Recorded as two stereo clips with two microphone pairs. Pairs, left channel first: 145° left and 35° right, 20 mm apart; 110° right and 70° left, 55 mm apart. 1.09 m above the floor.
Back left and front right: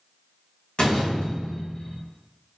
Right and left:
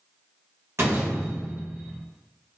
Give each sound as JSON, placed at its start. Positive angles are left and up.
{"t": 0.8, "sound": "a door slam", "azimuth_deg": 110, "distance_m": 1.2}